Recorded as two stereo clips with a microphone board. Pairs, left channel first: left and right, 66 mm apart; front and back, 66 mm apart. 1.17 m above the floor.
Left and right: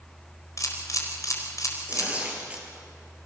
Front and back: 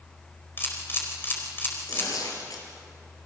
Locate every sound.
0.6 s a camera shutter: 55° left, 4.5 m
1.9 s tearing paper: 20° right, 5 m